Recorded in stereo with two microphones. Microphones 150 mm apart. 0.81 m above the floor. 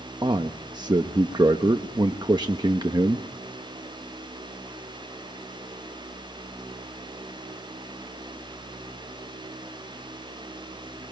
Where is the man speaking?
30° right (ahead or behind), 0.9 m.